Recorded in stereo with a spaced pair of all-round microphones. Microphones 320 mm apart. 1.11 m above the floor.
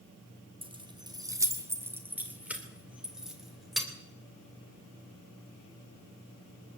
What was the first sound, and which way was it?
Keys jangling, 15° right (ahead or behind).